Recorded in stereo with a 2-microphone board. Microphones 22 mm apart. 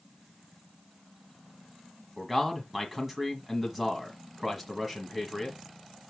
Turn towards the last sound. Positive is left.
turn(degrees=-5)  # may be behind; listen again after turning